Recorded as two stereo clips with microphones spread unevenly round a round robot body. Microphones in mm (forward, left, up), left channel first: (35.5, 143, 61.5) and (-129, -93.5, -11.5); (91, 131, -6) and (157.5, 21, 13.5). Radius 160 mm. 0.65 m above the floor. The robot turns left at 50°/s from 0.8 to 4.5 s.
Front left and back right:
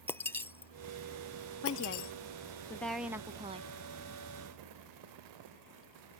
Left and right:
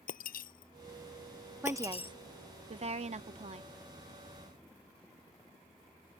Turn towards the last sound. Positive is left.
turn(degrees=-130)